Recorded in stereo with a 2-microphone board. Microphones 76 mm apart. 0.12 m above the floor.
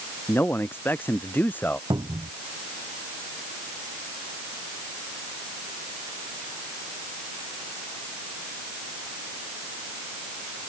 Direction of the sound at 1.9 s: 60° right (ahead or behind).